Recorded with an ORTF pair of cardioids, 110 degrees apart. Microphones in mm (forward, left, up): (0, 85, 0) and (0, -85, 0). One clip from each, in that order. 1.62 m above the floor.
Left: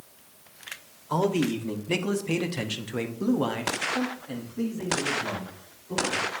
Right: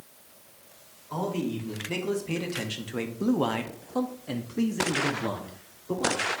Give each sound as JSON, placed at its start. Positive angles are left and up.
{"t": 1.1, "sound": "a man speaking", "azimuth_deg": 45, "distance_m": 1.5}